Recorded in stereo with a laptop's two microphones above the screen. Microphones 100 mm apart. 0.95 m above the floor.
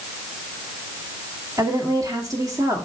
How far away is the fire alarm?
No fire alarm in this recording.